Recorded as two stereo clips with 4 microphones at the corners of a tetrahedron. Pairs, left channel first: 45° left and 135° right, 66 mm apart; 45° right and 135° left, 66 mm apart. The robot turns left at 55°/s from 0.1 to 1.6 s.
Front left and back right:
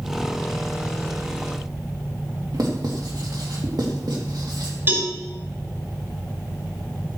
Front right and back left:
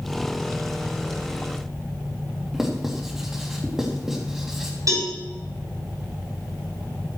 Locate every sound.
2.5 s writing: 140° right, 3 m
4.9 s a cowbell: 170° left, 6 m